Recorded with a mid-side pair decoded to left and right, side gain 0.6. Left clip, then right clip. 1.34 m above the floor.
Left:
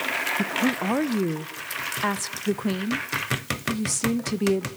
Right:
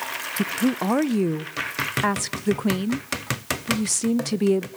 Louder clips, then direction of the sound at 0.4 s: Even; 20° right.